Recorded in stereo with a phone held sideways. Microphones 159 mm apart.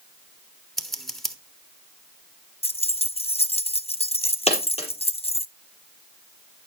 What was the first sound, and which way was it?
Scissors, 5° left (ahead or behind).